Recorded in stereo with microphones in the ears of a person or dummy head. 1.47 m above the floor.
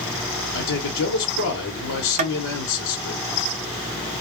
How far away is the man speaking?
About 1.0 m.